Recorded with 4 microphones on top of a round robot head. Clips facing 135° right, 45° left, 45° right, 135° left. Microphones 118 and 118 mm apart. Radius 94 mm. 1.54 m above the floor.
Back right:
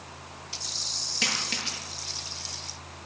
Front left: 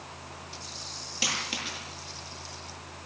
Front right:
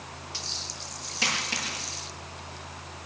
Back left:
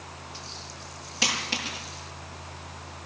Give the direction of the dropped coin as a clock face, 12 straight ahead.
5 o'clock.